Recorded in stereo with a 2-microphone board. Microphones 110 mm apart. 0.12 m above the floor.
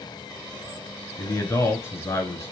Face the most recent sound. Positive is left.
turn(degrees=25)  # may be behind; listen again after turning